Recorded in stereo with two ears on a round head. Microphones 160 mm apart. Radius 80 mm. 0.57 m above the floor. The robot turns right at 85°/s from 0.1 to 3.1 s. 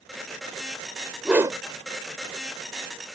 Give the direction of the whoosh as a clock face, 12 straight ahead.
6 o'clock.